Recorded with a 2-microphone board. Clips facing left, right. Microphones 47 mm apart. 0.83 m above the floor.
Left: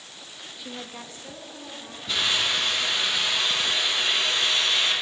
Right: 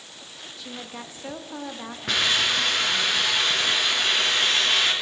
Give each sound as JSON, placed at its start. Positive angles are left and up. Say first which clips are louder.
{"t": 0.6, "sound": "a woman speaking", "louder": "right 1 dB", "side_deg": 15, "distance_m": 0.8}
{"t": 2.1, "sound": "a hiss", "louder": "right 2 dB", "side_deg": -70, "distance_m": 3.0}